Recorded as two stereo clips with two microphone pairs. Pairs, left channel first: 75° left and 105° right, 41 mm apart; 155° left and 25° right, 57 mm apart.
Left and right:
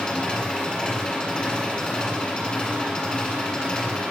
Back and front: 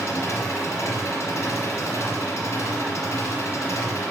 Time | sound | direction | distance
0.0 | an engine running | 145° left | 2.5 m